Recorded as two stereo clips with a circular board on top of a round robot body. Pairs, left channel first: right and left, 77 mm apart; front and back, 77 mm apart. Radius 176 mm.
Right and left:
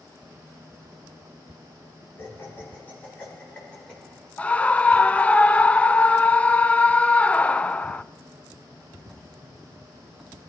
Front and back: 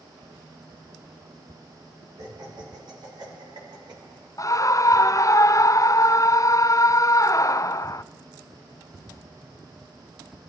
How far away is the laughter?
About 7 m.